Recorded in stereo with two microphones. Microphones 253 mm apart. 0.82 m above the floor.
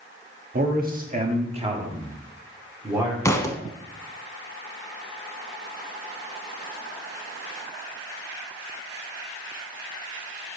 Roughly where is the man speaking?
Right.